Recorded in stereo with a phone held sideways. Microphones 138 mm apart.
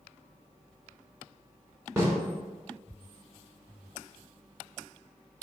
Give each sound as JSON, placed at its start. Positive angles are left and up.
{"t": 2.0, "sound": "a snare drum", "side_deg": -20, "distance_m": 2.5}